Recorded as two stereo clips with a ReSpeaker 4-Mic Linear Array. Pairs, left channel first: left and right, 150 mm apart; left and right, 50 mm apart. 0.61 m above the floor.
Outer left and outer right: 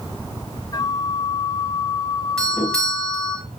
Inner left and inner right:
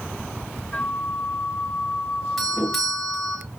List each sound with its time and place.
0.7 s a flute: 25° left (ahead or behind), 1.1 m
2.4 s a doorbell: 5° left (ahead or behind), 5.5 m